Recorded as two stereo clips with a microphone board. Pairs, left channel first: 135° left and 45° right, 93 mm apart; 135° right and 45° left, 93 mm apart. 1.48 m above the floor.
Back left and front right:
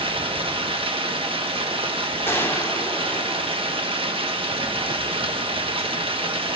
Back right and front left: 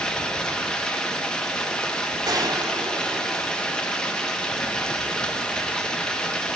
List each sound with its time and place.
0.0 s running water: 55° right, 1.6 m
2.3 s a gunshot: 75° left, 1.6 m